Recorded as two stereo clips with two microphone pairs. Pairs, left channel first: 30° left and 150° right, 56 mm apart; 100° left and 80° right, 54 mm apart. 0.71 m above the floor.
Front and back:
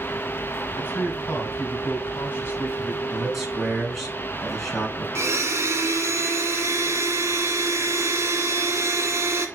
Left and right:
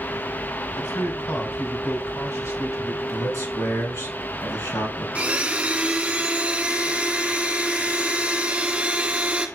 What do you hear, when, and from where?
0.8 s a man speaking: 80° left, 3 m
3.1 s a man speaking: 115° left, 5 m
5.2 s a blender: 135° right, 1.8 m